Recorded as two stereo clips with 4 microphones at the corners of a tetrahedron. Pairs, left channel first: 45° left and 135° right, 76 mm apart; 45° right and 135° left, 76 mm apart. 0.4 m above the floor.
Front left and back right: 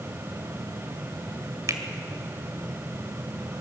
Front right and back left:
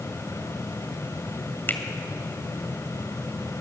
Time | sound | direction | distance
1.7 | a finger snap | 100° right | 1.9 m